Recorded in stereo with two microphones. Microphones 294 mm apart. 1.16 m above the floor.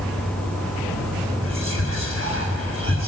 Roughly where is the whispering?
Right.